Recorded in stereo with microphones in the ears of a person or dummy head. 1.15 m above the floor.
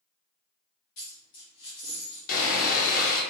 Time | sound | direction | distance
1.0 | a dropped coin | 65° left (ahead or behind) | 0.9 m
2.3 | sawing | 50° left (ahead or behind) | 0.9 m